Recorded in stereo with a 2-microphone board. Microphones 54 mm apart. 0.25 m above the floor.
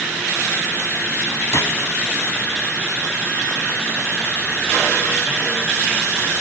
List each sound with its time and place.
1.5 s a gunshot: 60° left (ahead or behind), 0.8 m